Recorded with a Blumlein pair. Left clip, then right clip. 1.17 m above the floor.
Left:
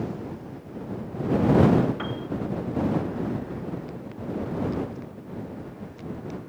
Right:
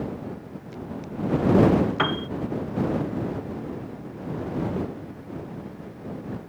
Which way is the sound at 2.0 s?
30° right.